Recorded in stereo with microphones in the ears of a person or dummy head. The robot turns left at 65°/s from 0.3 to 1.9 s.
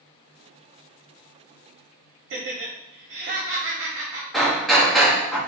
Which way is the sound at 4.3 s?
Centre (ahead or behind).